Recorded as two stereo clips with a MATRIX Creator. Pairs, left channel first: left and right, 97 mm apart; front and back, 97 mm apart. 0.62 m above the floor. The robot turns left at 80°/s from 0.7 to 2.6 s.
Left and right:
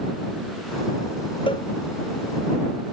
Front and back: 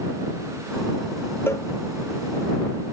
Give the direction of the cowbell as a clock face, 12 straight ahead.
10 o'clock.